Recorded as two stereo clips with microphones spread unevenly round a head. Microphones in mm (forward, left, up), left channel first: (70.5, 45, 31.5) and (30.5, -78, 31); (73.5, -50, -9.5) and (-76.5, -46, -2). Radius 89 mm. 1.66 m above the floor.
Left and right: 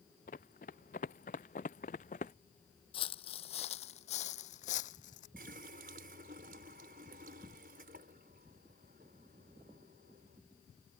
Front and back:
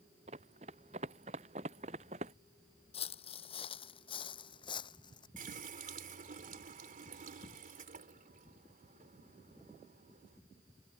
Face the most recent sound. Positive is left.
turn(degrees=-150)